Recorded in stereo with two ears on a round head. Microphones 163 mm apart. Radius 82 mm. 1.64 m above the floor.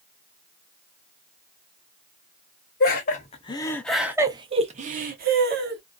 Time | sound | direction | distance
2.8 | laughter | 50° left (ahead or behind) | 0.8 m